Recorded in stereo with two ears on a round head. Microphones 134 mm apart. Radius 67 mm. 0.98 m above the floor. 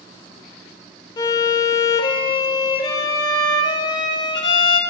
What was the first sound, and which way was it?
A violin, 30° left (ahead or behind).